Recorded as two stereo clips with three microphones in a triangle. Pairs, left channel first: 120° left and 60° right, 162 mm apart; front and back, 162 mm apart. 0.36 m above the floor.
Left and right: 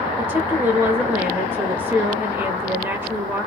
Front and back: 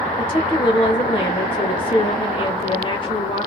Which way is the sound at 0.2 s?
5° left.